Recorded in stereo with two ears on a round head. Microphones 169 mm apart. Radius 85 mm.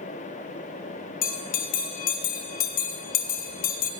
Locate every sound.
1.2 s a bell: 50° left (ahead or behind), 0.9 m